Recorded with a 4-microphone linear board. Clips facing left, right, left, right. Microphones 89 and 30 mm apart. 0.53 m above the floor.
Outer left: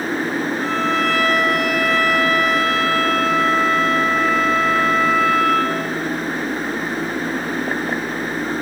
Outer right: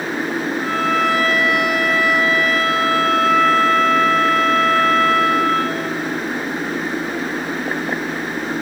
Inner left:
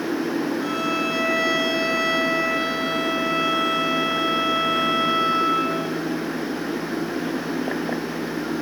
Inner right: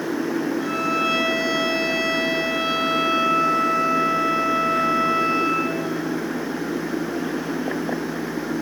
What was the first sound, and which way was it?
A violin, 5° right (ahead or behind).